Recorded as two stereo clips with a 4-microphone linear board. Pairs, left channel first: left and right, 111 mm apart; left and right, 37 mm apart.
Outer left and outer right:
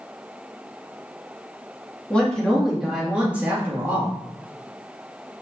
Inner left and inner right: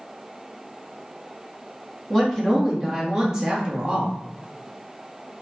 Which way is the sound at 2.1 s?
10° left (ahead or behind).